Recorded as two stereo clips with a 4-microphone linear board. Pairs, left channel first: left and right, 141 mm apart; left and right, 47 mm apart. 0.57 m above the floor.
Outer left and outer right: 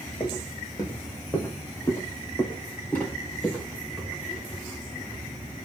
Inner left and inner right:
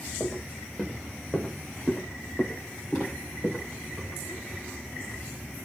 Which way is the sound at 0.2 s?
30° left (ahead or behind).